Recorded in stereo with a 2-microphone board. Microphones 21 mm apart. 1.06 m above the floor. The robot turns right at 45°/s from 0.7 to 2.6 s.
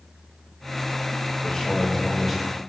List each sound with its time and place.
1.4 s a man speaking: 135° left, 5 m; by 2.6 s 175° right, 5 m